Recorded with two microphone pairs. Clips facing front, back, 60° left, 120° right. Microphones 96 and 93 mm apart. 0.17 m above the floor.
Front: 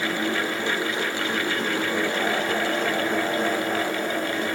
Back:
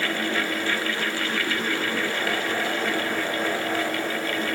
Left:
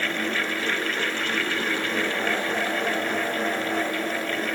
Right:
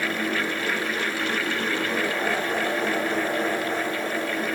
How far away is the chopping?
I don't hear chopping.